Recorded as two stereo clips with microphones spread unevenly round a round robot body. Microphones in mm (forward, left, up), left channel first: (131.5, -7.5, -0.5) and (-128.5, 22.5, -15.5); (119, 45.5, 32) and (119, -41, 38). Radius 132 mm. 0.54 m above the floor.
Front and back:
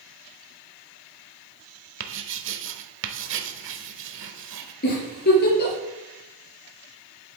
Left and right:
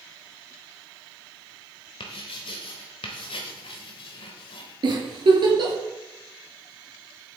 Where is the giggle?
60° right, 4 m.